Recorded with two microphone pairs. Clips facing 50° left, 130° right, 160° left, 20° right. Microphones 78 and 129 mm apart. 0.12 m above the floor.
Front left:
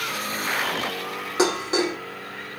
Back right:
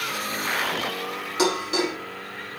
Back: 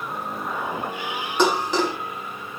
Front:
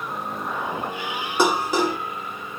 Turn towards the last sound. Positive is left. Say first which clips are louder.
# front left 1 dB, even
turn(degrees=50)